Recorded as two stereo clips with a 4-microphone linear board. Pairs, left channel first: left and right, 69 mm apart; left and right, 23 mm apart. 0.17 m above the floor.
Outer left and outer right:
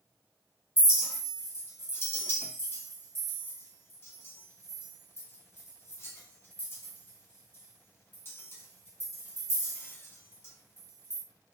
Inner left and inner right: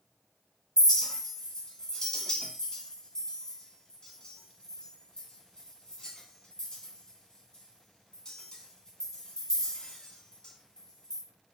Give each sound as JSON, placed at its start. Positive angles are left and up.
{"t": 0.8, "sound": "a clink", "side_deg": 35, "distance_m": 0.7}